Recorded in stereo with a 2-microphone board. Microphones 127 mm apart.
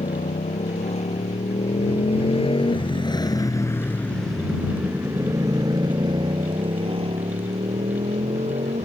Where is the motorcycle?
70° left (ahead or behind); by 8.9 s 60° right (ahead or behind).